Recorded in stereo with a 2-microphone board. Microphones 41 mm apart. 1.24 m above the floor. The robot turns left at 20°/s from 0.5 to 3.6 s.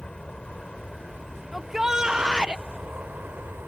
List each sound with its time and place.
0.0 s an aircraft: 15° left; by 3.7 s 45° right
1.5 s a shout: 5° right (ahead or behind); by 2.6 s 25° right (ahead or behind)